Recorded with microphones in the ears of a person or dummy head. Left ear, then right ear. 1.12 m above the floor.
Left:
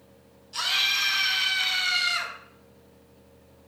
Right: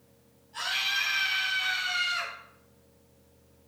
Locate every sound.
0.5 s a scream: 55° left (ahead or behind), 6 m; by 2.3 s 60° left (ahead or behind), 4 m